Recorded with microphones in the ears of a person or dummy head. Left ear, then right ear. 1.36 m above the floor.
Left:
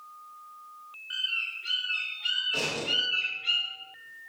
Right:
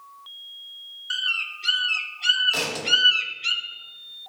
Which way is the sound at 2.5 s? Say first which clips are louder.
Right 3 dB; 50° right (ahead or behind).